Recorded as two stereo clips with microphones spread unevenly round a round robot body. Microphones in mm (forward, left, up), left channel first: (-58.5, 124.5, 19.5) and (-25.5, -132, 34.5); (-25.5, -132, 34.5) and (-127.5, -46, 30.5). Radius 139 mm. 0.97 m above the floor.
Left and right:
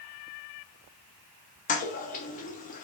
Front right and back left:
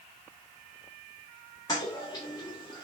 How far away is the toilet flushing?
About 1.4 m.